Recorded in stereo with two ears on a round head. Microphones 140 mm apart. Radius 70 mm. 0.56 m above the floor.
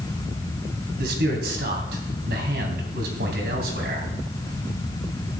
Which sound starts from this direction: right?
A man speaking, at 1.0 s.